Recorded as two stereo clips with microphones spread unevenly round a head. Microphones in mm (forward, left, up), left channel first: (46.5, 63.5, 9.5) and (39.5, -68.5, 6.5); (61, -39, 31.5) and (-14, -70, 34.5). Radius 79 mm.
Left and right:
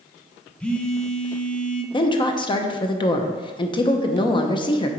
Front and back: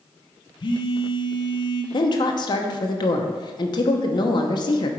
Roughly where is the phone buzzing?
Ahead.